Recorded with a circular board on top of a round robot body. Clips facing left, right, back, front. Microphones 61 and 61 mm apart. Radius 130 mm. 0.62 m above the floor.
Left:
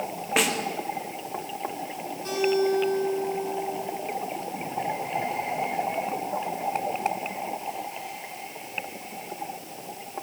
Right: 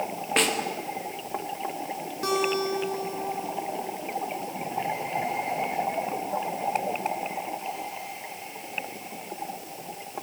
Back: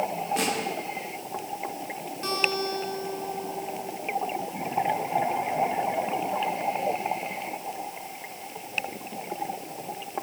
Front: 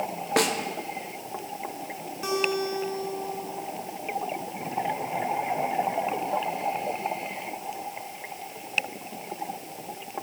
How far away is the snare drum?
About 3 m.